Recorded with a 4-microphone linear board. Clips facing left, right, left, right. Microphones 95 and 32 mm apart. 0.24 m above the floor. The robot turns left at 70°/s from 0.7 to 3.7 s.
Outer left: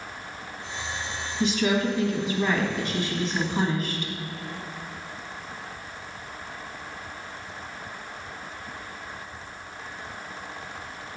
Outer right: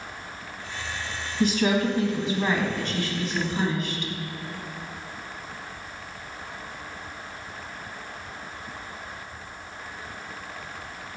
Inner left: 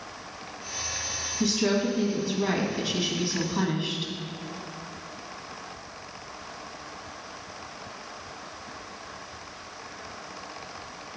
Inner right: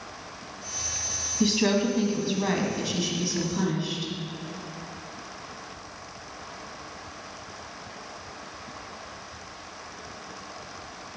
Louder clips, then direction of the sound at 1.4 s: Outer right 1 dB, inner right 2 dB; 90° right.